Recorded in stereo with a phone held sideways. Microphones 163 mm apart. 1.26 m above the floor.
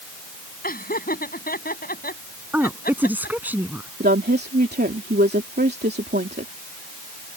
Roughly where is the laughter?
Left.